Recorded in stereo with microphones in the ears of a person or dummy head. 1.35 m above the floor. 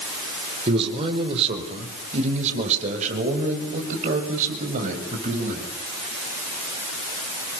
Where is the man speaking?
35° right (ahead or behind), 4 m; by 5.6 s 45° right (ahead or behind), 7 m.